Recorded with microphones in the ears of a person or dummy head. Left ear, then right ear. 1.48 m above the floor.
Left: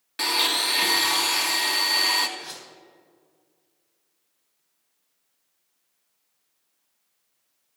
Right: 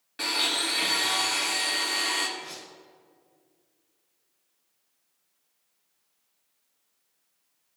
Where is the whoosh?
50° left (ahead or behind), 3.5 m.